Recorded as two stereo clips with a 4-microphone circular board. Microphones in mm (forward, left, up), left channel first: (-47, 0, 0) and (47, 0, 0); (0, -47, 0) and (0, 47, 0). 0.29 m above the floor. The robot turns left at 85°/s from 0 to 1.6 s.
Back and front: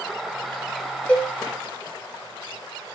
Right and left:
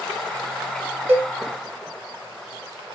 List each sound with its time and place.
1.1 s a cowbell: 125° left, 0.8 m; by 1.3 s 105° left, 0.8 m